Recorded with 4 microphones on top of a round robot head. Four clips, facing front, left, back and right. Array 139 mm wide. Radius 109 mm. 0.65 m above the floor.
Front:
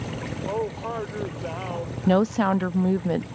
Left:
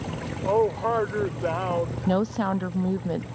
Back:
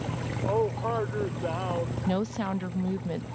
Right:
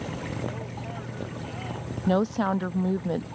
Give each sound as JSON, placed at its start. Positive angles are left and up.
{"t": 0.5, "sound": "a man speaking", "azimuth_deg": 95}
{"t": 2.1, "sound": "a woman speaking", "azimuth_deg": -5}